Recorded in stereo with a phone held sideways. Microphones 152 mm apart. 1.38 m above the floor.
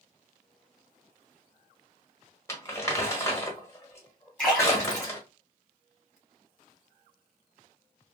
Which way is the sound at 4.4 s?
10° left (ahead or behind).